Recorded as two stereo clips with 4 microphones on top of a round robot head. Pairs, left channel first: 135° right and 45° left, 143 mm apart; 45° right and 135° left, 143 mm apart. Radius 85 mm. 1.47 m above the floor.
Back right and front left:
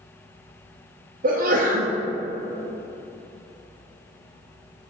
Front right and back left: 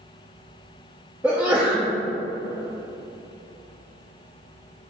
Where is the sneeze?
55° left, 0.8 m.